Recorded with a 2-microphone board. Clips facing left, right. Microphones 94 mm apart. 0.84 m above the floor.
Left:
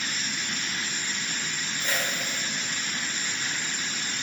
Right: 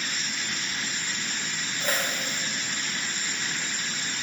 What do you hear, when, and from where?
1.8 s a whoosh: 45° right (ahead or behind), 0.9 m